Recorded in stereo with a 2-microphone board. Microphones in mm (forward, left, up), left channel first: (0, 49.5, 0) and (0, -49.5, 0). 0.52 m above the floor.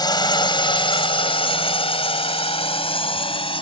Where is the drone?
45° left (ahead or behind); by 3.6 s 65° left (ahead or behind).